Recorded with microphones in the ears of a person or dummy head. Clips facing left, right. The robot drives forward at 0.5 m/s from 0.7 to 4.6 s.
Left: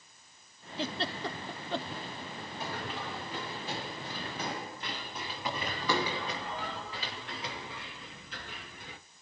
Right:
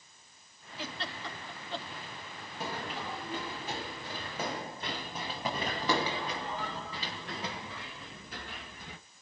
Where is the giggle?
25° left (ahead or behind), 0.9 m; by 1.9 s 50° left (ahead or behind), 0.5 m.